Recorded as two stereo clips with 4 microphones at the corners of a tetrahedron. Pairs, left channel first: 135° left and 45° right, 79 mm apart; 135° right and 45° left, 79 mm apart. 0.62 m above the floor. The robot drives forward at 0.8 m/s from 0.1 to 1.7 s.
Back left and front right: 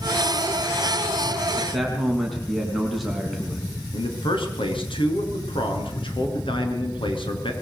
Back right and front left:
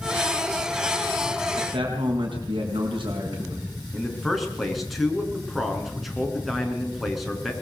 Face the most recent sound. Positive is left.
turn(degrees=135)